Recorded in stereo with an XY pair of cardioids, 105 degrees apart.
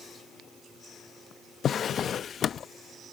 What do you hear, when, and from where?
1.6 s a drawer: 55° left